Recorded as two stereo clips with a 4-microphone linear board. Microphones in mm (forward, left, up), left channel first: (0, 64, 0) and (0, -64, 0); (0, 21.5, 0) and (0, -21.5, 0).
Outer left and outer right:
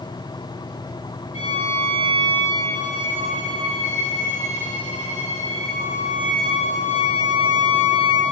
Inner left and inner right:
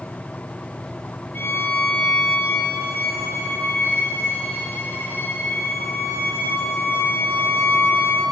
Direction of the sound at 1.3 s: 50° left (ahead or behind).